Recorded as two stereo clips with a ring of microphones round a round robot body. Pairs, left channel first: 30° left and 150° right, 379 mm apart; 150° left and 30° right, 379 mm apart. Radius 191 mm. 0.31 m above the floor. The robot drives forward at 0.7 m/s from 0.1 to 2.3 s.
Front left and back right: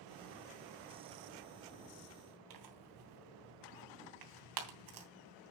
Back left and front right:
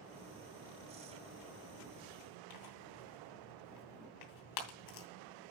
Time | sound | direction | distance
2.5 | tearing paper | straight behind | 3 m